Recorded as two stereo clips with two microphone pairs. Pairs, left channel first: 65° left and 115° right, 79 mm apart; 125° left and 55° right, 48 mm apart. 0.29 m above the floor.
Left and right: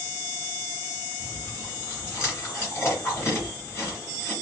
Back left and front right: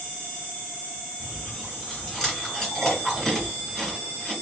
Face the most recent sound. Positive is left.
turn(degrees=50)